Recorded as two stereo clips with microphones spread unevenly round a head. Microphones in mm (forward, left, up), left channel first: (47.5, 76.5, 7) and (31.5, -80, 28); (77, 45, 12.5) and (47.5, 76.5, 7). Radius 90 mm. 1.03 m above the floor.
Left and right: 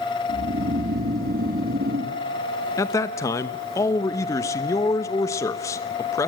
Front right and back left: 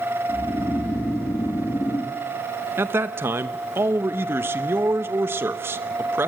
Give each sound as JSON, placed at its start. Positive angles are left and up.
{"t": 0.3, "sound": "snoring", "azimuth_deg": -70, "distance_m": 1.8}
{"t": 2.8, "sound": "a man speaking", "azimuth_deg": 155, "distance_m": 0.8}